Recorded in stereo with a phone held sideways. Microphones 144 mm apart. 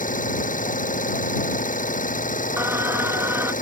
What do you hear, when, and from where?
0.0 s an engine running: 65° left (ahead or behind)
2.6 s singing: 15° right (ahead or behind)